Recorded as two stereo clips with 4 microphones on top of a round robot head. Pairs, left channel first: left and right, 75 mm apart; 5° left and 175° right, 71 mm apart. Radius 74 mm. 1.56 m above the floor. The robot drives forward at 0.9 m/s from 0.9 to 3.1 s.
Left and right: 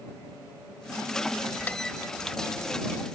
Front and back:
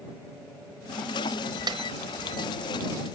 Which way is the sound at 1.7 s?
165° left.